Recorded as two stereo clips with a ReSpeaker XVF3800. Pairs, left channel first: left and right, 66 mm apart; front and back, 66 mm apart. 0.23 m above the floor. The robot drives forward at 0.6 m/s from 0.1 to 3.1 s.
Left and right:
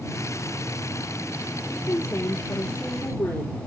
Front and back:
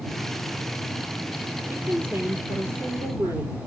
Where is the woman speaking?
125° left, 3.5 m; by 3.7 s 135° left, 4 m.